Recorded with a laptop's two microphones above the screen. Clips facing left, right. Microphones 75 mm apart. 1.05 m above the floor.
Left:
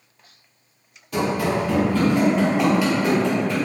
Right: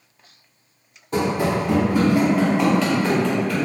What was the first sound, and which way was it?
Running footsteps, 30° right (ahead or behind).